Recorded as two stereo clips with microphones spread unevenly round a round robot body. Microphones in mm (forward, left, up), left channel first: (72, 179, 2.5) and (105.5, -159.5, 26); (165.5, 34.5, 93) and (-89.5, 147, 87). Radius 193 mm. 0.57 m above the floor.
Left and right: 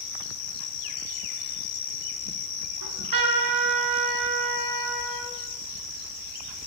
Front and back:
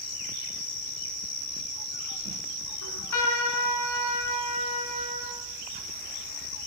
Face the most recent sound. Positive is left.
turn(degrees=-60)